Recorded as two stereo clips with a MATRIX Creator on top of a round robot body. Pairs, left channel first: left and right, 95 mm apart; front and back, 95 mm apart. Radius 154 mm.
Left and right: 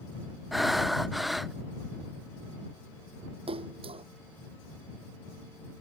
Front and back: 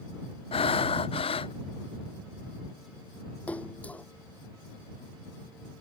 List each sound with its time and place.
0.5 s breathing: straight ahead
3.5 s a splash: 75° right